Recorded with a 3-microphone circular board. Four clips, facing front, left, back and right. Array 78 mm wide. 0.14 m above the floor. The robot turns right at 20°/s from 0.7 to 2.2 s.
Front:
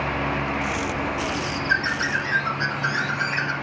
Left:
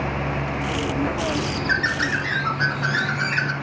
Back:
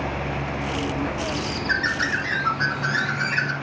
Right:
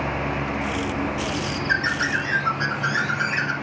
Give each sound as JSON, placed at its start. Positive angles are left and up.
{"t": 1.3, "sound": "a bird", "azimuth_deg": 105, "distance_m": 2.5}